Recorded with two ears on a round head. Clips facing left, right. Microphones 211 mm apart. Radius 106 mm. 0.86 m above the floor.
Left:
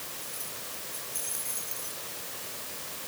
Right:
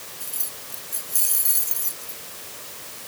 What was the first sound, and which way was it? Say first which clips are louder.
Keys jangling: right 1 dB; 50° right (ahead or behind).